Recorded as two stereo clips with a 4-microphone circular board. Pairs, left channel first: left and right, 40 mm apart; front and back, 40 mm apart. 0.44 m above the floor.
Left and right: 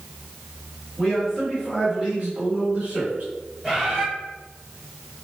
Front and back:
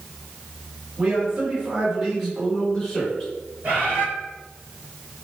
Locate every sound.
1.0 s a man speaking: 165° right, 1.4 m; by 3.2 s 65° right, 2 m
3.6 s a bird: 160° right, 1.1 m